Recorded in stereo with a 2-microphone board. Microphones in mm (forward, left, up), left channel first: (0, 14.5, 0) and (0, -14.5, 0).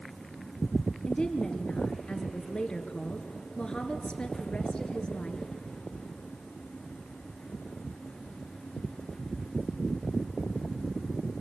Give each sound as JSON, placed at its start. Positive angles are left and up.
{"t": 1.1, "sound": "a woman speaking", "side_deg": 35, "distance_m": 2.5}